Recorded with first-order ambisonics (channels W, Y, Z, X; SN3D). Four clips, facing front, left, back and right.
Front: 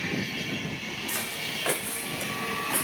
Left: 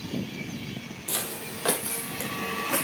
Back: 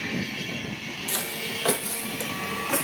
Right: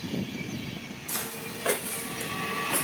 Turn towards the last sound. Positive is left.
turn(degrees=145)